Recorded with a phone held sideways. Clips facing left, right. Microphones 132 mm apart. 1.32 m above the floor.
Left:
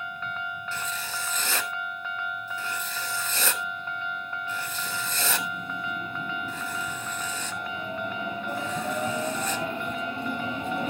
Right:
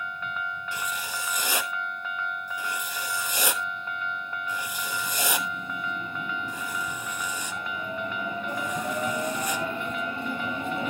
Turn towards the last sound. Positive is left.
turn(degrees=-10)  # may be behind; listen again after turning